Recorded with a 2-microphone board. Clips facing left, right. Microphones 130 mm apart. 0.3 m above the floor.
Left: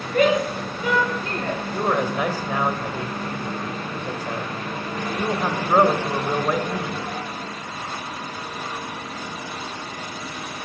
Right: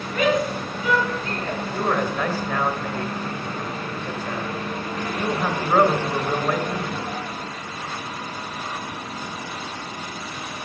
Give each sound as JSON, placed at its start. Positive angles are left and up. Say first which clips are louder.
{"t": 0.1, "sound": "a shout", "louder": "left 2 dB", "side_deg": 55, "distance_m": 5.0}
{"t": 1.7, "sound": "a man speaking", "louder": "left 1 dB", "side_deg": 15, "distance_m": 1.3}